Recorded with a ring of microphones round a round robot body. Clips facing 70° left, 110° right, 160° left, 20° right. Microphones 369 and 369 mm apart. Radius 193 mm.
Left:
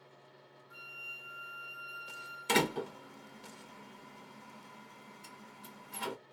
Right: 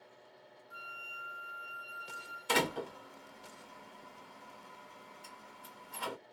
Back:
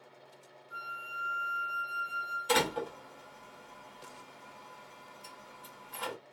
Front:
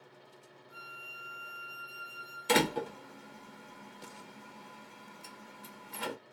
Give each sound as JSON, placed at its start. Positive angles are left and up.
{"t": 0.7, "sound": "a flute", "azimuth_deg": 25, "distance_m": 1.2}
{"t": 2.5, "sound": "a door slam", "azimuth_deg": 20, "distance_m": 0.6}